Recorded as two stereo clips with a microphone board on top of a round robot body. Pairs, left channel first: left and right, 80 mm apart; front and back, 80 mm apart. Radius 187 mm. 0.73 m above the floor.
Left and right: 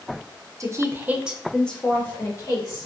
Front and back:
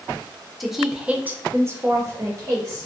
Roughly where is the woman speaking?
Right.